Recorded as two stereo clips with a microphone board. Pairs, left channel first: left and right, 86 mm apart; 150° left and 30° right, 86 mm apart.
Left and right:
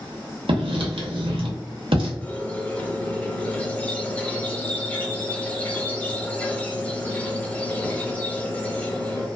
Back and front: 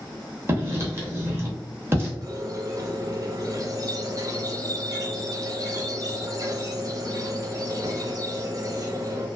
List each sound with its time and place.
0.5 s writing: 95° right, 0.7 m
2.2 s a squeak: 15° left, 0.5 m